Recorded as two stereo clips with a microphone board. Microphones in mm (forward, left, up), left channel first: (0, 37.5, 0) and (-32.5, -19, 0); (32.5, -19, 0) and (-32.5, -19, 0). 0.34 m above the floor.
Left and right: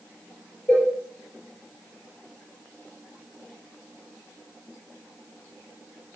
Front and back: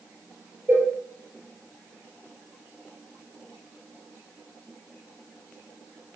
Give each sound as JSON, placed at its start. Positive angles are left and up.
{"t": 0.7, "sound": "a cowbell", "azimuth_deg": 130, "distance_m": 5.0}